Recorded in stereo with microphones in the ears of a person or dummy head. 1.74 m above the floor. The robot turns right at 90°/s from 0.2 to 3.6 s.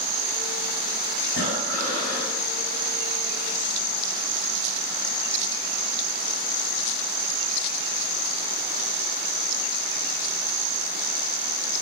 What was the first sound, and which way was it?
Breathing, 80° left.